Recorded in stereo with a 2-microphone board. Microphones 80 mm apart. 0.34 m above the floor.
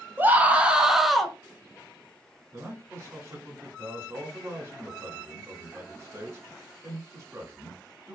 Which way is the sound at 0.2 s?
25° right (ahead or behind).